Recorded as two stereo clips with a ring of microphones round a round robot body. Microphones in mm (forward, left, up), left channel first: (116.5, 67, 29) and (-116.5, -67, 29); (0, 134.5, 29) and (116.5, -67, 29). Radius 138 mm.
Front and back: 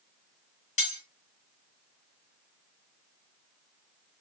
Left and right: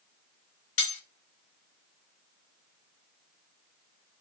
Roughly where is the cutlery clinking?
Left.